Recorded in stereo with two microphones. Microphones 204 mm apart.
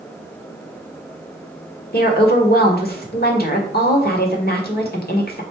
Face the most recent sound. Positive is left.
turn(degrees=50)  # may be behind; listen again after turning